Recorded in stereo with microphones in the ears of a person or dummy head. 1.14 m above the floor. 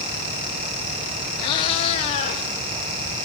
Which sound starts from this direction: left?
A cat meowing, at 1.4 s.